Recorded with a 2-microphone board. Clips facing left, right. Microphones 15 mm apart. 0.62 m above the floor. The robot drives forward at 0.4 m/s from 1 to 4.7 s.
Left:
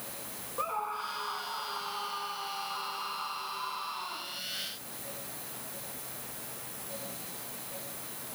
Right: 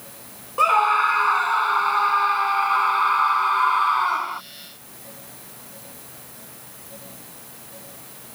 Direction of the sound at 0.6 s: 60° right (ahead or behind).